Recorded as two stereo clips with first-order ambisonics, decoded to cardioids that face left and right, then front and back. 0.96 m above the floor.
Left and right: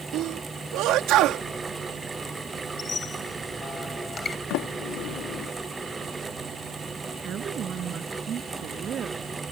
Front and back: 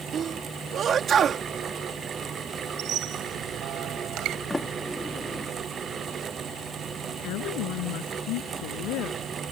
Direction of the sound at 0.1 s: 125° right.